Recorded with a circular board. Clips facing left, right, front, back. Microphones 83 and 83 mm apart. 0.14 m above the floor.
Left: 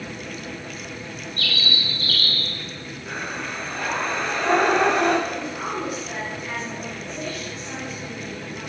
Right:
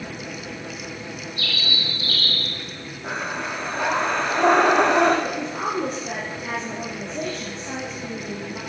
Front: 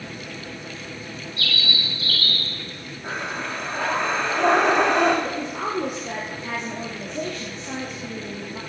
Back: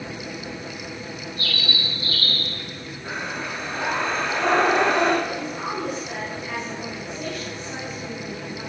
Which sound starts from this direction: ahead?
A bird, at 1.4 s.